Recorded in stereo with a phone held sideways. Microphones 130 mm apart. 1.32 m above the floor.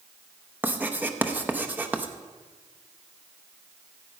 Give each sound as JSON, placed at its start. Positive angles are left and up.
{"t": 0.6, "sound": "writing", "side_deg": -15, "distance_m": 0.8}